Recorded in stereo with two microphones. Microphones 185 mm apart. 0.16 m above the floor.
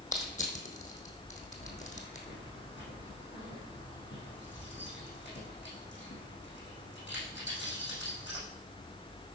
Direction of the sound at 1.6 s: 75° left (ahead or behind).